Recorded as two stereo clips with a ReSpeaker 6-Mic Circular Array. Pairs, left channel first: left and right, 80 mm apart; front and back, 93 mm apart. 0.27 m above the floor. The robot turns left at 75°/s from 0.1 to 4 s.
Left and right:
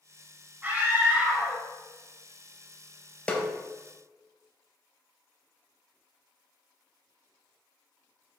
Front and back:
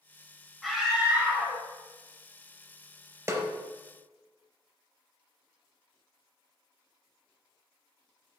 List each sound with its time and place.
0.6 s a scream: 90° right, 1.0 m; by 1.6 s 165° right, 1.0 m
3.3 s a snare drum: 155° left, 0.5 m; by 3.5 s 140° left, 0.5 m